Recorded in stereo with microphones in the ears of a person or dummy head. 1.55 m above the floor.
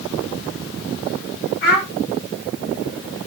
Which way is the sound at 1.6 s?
55° left (ahead or behind).